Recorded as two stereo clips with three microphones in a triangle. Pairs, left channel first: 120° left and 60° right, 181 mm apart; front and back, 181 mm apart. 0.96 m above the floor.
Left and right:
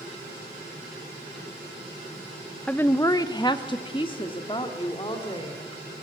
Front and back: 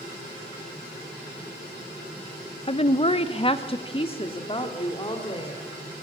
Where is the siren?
No siren in this recording.